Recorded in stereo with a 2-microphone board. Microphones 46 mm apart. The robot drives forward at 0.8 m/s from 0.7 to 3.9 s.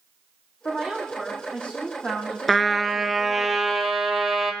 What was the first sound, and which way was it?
A woman speaking, 20° left (ahead or behind).